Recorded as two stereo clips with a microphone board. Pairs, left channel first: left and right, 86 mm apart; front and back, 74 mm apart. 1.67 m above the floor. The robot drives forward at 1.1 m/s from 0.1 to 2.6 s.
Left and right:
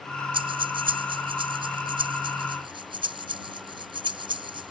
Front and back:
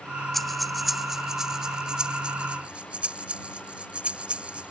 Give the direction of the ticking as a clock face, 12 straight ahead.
I don't hear ticking.